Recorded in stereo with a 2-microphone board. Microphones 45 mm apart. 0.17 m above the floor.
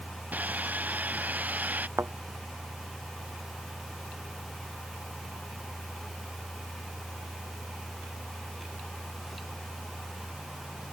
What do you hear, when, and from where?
0.3 s sawing: 35° right (ahead or behind)
2.0 s a thud: 65° right (ahead or behind)